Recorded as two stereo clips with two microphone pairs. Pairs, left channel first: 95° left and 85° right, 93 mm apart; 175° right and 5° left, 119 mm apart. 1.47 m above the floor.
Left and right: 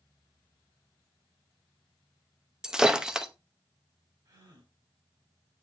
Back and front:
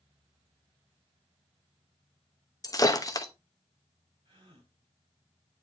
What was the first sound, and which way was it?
Breaking glass, 160° right.